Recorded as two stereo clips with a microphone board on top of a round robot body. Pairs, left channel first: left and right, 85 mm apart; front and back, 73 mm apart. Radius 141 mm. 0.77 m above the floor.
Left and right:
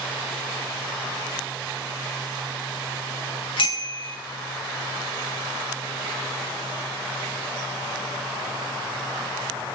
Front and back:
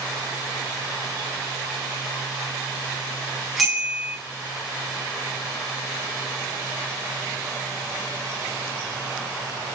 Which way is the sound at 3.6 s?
90° left.